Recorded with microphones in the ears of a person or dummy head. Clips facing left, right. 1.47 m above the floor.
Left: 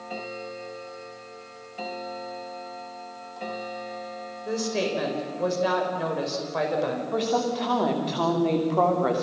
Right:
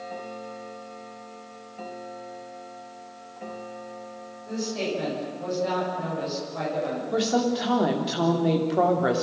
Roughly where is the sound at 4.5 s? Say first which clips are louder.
Left 2 dB; left.